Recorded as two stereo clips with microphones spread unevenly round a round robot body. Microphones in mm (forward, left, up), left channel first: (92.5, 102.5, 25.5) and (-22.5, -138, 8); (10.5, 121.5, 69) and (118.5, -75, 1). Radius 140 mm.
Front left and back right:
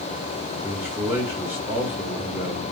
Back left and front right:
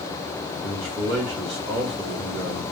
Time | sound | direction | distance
0.6 | a man speaking | 35° right | 3.5 m